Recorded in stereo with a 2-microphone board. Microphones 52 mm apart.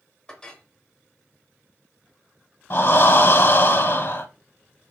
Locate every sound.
0.3 s a clink: 15° left (ahead or behind), 1.1 m
2.7 s breathing: 50° left (ahead or behind), 0.7 m